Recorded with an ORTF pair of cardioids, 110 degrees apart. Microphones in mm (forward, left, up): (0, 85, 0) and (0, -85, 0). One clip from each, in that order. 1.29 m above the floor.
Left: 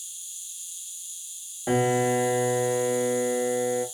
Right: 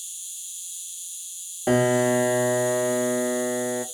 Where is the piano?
25° right, 0.7 m.